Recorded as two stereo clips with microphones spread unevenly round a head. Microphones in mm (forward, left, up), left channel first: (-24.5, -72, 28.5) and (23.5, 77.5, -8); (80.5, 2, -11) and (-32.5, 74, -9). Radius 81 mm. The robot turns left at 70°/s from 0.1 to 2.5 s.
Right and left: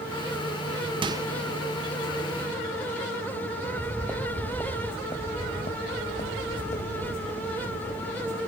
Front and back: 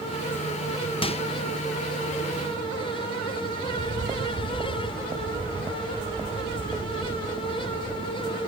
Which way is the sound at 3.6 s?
170° left.